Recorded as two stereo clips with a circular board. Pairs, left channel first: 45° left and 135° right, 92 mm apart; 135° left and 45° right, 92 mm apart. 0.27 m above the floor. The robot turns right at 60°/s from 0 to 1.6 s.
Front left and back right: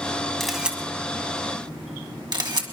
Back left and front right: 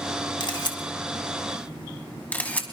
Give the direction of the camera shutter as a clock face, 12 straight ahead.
8 o'clock.